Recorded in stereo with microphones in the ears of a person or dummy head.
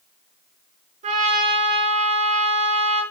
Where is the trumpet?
40° right (ahead or behind), 4.5 m.